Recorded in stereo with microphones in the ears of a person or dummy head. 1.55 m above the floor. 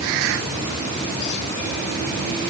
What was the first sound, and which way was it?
Only background noise.